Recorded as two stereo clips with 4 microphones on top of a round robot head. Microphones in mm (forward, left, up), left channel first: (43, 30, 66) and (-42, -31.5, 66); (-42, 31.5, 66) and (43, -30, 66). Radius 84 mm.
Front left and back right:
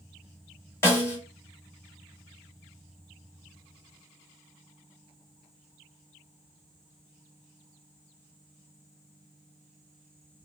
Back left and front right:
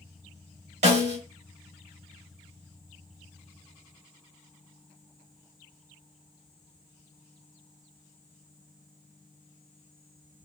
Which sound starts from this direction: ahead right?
A snare drum, at 0.8 s.